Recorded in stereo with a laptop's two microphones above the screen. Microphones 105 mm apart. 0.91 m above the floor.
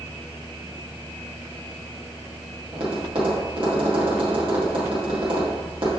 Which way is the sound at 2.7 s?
55° right (ahead or behind).